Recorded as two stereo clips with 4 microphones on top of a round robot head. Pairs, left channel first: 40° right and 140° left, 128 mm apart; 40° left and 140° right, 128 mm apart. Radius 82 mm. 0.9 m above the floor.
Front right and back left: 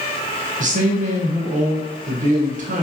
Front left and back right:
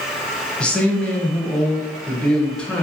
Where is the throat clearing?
No throat clearing in this recording.